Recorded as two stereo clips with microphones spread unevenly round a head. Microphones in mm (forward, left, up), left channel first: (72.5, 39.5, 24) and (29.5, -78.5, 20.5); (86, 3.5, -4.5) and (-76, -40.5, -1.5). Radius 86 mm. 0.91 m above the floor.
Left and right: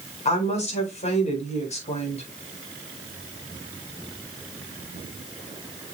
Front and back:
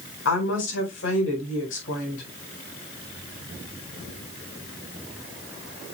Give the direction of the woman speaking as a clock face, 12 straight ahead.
11 o'clock.